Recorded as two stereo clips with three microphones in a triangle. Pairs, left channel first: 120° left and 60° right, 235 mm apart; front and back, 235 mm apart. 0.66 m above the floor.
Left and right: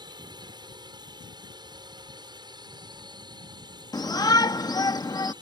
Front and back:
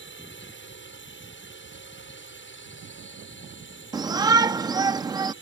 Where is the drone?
10° left.